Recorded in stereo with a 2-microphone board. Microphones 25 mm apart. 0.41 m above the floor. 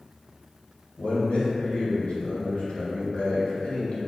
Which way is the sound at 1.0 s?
55° left (ahead or behind).